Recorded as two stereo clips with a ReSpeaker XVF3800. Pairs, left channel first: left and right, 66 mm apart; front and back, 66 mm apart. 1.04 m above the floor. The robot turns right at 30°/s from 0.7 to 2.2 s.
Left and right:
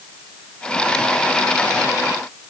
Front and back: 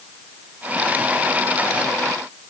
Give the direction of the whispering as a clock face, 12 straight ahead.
No whispering in this recording.